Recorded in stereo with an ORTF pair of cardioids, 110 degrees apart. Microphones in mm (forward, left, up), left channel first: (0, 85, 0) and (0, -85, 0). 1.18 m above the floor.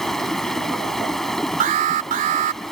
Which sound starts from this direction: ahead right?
An alarm, at 1.6 s.